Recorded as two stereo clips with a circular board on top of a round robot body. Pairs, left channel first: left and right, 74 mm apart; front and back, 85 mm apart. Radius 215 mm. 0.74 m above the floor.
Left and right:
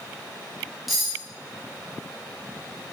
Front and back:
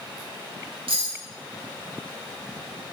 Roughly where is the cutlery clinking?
Behind.